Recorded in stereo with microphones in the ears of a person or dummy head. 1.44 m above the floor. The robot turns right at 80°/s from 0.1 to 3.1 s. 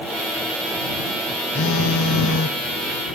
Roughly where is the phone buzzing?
Ahead left.